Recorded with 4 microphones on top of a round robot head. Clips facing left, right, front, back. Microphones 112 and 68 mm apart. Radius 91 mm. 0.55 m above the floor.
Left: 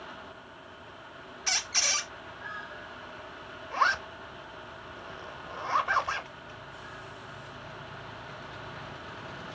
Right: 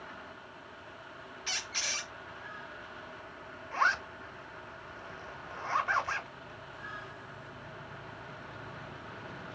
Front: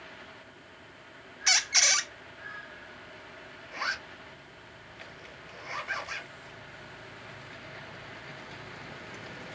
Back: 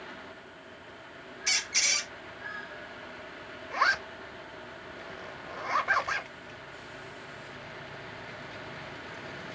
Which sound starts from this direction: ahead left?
A squeak, at 1.5 s.